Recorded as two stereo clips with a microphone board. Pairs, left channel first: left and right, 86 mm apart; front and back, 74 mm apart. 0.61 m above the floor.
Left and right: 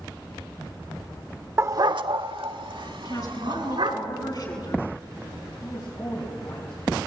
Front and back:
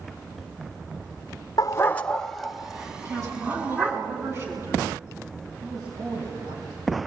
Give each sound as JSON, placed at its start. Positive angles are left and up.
{"t": 1.6, "sound": "a dog barking", "azimuth_deg": -30, "distance_m": 0.5}
{"t": 3.0, "sound": "a woman speaking", "azimuth_deg": 125, "distance_m": 7.5}
{"t": 5.6, "sound": "a man speaking", "azimuth_deg": 145, "distance_m": 4.5}